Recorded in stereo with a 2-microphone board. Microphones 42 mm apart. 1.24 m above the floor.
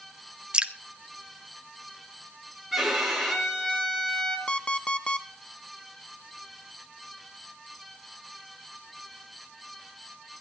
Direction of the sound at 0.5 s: 25° right (ahead or behind).